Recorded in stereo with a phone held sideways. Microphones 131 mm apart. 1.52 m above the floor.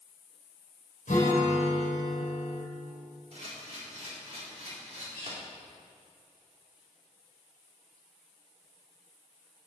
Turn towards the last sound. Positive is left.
turn(degrees=-65)  # may be behind; listen again after turning